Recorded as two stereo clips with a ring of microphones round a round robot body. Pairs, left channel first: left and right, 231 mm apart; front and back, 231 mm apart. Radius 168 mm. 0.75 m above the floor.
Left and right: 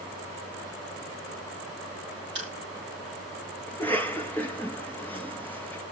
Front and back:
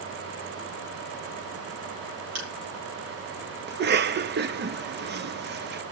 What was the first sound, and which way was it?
Crushing, 165° right.